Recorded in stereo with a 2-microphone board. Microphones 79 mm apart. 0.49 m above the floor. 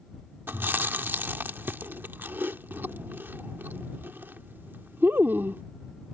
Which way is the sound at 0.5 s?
30° right (ahead or behind).